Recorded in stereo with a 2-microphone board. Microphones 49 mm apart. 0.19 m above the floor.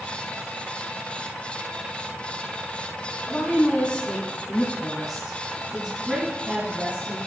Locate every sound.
3.3 s a woman speaking: 35° left (ahead or behind), 2 m; by 7.2 s 35° right (ahead or behind), 2 m